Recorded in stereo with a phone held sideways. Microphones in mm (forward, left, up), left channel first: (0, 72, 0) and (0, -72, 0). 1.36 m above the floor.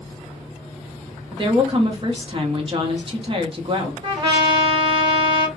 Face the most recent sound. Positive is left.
turn(degrees=-40)  # may be behind; listen again after turning